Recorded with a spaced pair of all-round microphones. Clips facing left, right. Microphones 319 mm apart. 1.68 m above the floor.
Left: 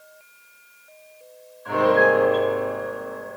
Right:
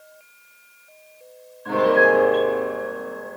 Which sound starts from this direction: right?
A piano, at 1.6 s.